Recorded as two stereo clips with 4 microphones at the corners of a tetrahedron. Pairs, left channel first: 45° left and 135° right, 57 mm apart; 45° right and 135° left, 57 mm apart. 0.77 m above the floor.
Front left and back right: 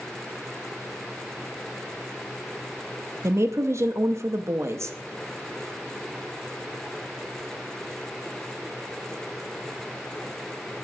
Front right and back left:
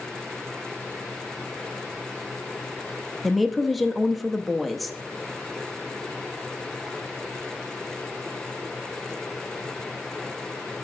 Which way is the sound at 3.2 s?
135° right.